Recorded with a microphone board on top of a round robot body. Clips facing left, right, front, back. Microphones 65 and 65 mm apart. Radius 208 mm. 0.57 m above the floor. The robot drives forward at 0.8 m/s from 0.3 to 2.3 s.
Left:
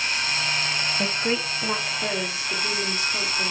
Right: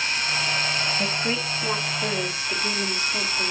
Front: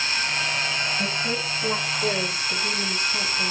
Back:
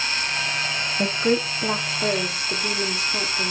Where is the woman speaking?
165° left, 1.2 m; by 3.5 s 175° left, 2 m.